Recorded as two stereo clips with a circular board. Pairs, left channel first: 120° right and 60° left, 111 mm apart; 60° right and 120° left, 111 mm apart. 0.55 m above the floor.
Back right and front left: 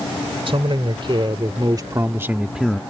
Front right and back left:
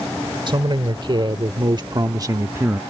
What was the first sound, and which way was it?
A man speaking, 80° left.